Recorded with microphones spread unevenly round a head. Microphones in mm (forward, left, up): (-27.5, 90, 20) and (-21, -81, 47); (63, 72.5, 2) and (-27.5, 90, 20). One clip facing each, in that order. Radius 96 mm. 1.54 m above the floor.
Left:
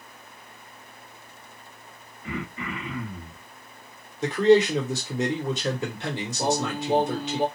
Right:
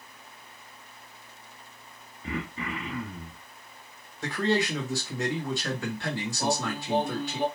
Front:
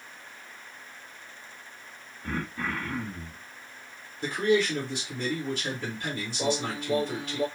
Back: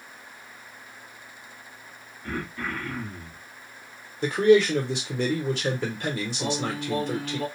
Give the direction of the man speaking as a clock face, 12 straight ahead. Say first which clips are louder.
Left 9 dB, back 7 dB; 7 o'clock.